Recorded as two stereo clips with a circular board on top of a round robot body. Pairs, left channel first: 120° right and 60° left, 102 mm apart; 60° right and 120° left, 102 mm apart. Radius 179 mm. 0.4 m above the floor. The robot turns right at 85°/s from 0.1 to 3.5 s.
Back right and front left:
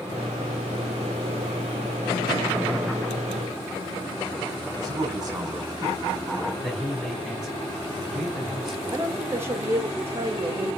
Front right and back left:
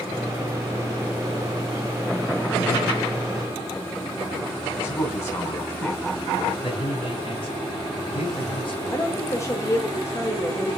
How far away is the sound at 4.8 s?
About 4 m.